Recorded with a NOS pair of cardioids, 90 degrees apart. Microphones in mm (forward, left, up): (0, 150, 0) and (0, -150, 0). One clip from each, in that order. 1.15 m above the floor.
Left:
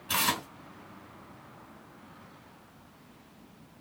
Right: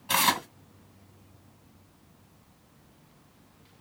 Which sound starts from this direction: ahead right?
Tearing paper, at 0.1 s.